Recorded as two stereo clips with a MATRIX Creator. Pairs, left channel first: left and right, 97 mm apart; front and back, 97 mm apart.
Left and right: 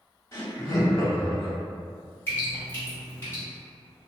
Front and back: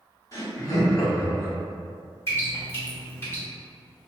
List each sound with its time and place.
0.3 s laughter: 40° left, 1.4 m
2.3 s dripping: 35° left, 1.8 m